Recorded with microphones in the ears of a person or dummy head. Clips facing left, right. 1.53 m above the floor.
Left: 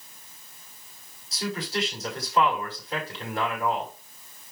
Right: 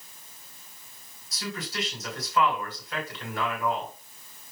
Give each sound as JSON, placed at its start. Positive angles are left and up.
{"t": 1.3, "sound": "a man speaking", "side_deg": 25, "distance_m": 5.5}